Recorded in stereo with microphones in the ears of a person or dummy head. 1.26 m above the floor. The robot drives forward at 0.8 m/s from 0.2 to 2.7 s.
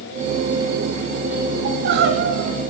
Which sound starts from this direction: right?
Crying, at 1.6 s.